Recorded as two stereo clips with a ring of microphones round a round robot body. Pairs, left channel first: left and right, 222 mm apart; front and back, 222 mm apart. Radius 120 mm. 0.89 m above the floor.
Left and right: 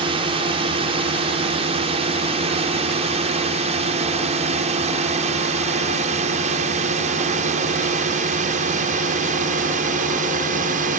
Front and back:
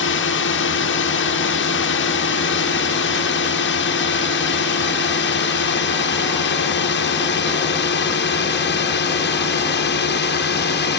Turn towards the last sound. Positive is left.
turn(degrees=-35)